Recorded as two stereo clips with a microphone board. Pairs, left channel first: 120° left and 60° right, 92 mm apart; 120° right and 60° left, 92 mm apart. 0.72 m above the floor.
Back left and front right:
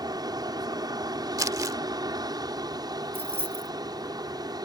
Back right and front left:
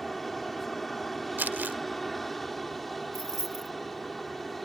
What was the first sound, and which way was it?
An aircraft, 35° right.